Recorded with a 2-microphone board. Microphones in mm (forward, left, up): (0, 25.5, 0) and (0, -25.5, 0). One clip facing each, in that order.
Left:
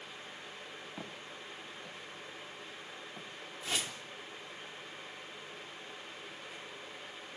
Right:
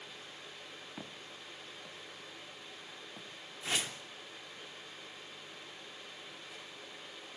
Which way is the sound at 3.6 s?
25° right (ahead or behind).